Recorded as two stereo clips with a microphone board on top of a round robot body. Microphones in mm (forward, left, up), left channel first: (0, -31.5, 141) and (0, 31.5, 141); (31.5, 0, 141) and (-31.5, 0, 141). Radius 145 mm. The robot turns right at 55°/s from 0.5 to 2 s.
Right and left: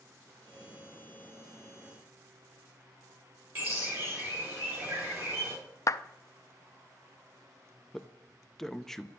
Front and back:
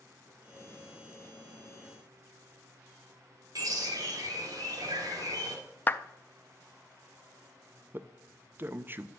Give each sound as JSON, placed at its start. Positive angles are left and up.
{"t": 3.5, "sound": "a bird", "azimuth_deg": 150, "distance_m": 3.0}
{"t": 5.9, "sound": "a clap", "azimuth_deg": -60, "distance_m": 0.5}
{"t": 7.9, "sound": "a man speaking", "azimuth_deg": -170, "distance_m": 0.7}